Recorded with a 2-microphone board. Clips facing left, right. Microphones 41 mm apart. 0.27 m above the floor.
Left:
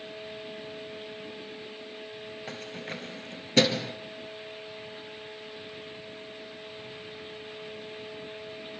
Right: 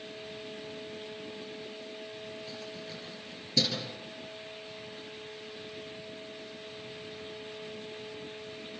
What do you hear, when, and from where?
2.5 s keys jangling: 55° left (ahead or behind), 3 m